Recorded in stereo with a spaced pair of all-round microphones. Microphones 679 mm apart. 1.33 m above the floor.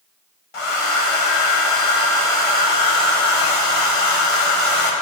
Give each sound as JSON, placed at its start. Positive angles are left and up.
{"t": 0.5, "sound": "a hair dryer", "side_deg": 45, "distance_m": 0.8}